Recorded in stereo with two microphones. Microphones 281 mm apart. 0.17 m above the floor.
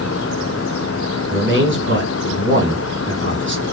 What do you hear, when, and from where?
1.3 s a man speaking: 45° right (ahead or behind), 1.9 m